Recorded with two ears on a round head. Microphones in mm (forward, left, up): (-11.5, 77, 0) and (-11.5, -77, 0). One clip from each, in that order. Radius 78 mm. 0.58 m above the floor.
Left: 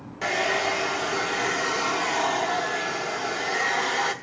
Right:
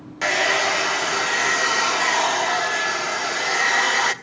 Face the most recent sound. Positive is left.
turn(degrees=-40)  # may be behind; listen again after turning